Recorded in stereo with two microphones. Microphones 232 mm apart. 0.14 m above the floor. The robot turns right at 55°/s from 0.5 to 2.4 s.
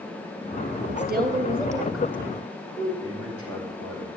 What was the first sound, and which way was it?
A woman speaking, 60° right.